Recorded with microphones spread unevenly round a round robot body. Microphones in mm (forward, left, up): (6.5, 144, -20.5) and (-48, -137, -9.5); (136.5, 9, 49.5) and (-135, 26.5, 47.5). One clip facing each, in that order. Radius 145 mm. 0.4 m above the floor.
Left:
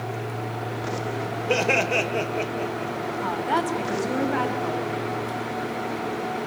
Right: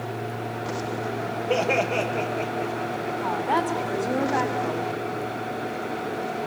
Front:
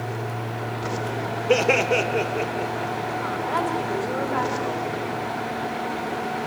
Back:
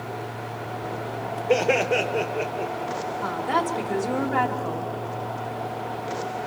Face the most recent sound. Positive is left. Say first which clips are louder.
# even, back 1 dB
turn(degrees=140)